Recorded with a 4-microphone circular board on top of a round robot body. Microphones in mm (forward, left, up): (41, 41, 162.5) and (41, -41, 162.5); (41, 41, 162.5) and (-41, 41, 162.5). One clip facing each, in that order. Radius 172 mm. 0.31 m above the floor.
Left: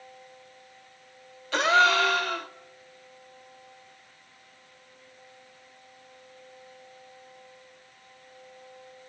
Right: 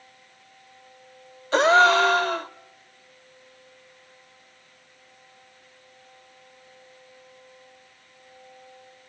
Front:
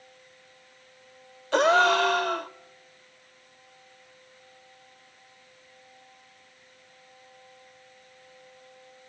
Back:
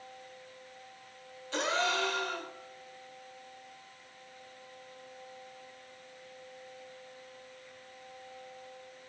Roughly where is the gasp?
Ahead right.